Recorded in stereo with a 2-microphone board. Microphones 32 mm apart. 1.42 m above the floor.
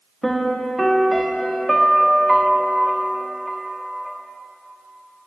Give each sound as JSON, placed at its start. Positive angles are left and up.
{"t": 0.2, "sound": "a piano", "side_deg": 0, "distance_m": 0.8}